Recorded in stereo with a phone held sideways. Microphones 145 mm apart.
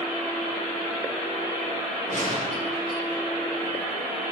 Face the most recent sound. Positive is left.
turn(degrees=-65)  # may be behind; listen again after turning